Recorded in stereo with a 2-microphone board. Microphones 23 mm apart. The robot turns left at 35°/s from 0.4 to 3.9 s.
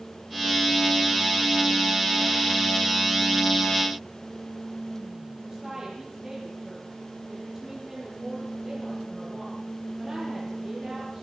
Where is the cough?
No cough in this recording.